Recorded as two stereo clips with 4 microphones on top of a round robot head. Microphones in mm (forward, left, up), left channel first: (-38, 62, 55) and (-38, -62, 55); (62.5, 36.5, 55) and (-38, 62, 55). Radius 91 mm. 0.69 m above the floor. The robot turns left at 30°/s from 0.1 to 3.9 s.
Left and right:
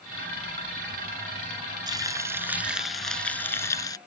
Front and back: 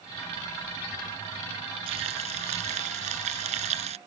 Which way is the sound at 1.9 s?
150° right.